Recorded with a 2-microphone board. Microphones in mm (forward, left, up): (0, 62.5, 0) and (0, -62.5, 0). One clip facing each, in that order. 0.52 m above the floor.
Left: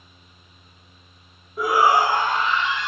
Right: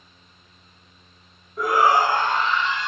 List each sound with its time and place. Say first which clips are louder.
1.6 s a shout: even; 5° left (ahead or behind), 0.7 m; by 2.9 s 10° left (ahead or behind), 2 m